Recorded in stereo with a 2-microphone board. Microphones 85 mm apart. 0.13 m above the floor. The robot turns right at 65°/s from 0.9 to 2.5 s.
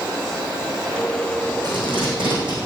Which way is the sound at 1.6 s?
55° right (ahead or behind).